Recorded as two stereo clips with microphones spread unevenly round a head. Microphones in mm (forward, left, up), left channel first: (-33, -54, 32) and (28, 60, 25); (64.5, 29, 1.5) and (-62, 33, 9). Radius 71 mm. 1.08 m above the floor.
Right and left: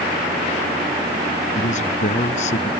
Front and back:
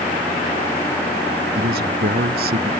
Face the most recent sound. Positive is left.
turn(degrees=-155)